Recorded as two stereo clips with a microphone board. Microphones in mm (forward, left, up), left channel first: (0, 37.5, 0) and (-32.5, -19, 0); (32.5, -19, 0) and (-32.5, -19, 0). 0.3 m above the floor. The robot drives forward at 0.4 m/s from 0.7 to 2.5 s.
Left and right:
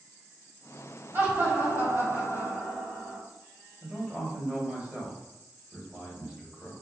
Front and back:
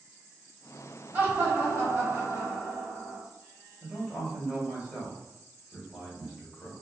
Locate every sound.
1.1 s laughter: 135° right, 1.3 m; by 3.2 s 155° right, 1.6 m
3.8 s a man speaking: 145° right, 1.3 m